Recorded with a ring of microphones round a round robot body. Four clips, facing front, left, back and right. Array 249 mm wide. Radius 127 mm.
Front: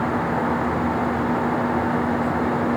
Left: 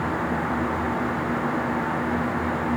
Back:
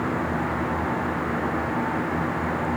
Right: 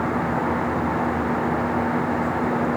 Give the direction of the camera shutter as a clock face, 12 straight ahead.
I don't hear a camera shutter.